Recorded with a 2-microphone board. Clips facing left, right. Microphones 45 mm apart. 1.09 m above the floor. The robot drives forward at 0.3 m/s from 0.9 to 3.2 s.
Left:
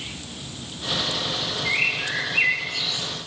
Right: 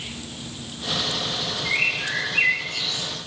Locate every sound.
1.6 s a bird: 10° left (ahead or behind), 7 m